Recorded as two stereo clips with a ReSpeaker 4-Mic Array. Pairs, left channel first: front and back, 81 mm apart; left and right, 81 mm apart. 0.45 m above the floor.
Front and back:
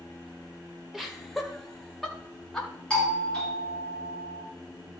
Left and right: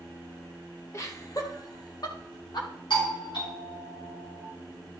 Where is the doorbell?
80° left, 4 m.